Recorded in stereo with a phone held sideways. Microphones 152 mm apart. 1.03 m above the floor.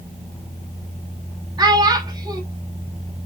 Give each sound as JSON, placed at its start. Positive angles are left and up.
{"t": 1.6, "sound": "a child speaking", "side_deg": -25, "distance_m": 1.6}